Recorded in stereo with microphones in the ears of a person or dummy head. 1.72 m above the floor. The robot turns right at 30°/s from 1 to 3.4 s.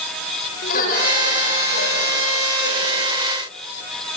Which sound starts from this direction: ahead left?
Laughter, at 0.6 s.